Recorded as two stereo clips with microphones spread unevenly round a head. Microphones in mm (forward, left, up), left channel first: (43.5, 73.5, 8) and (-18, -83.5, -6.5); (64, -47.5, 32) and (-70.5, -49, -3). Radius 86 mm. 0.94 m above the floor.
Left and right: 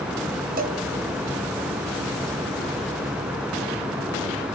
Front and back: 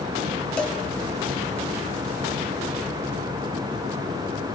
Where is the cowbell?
75° right, 2.5 m.